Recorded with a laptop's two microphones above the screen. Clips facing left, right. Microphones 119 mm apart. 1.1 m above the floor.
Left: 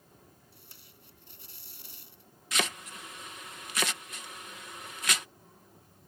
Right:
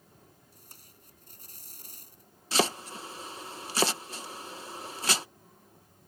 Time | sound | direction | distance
0.5 | tape being pulled | 45° right (ahead or behind) | ?
2.5 | chopping | 30° right (ahead or behind) | ?